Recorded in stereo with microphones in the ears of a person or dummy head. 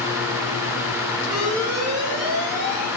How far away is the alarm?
About 10 m.